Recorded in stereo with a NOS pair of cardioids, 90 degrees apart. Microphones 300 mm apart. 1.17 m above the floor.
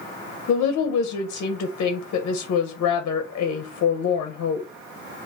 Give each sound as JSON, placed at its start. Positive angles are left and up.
{"t": 0.5, "sound": "a woman speaking", "azimuth_deg": 60, "distance_m": 0.7}